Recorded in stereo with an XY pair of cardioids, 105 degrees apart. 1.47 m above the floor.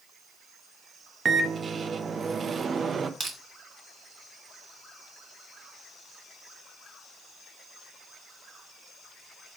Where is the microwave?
40° right, 0.7 m.